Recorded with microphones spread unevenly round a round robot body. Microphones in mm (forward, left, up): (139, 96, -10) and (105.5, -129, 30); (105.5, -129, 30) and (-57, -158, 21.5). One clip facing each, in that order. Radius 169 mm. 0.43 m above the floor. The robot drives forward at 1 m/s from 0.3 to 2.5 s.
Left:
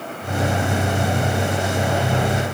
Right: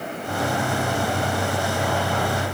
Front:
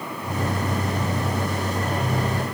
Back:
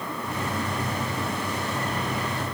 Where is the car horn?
No car horn in this recording.